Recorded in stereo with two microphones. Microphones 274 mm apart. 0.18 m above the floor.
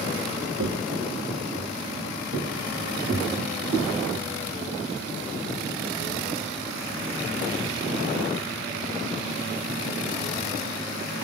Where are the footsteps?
70° right (ahead or behind), 0.6 m; by 3.9 s 85° right, 4.5 m.